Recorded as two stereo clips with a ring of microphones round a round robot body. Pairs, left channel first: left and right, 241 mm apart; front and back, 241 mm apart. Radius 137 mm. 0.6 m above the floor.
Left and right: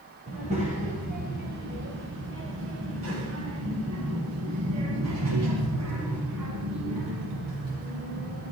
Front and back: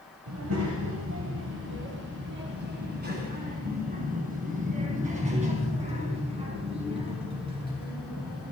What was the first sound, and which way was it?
A child speaking, 160° right.